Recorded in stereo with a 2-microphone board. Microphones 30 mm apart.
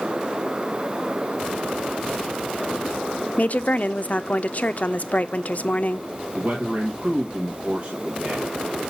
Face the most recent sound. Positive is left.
turn(degrees=-45)  # may be behind; listen again after turning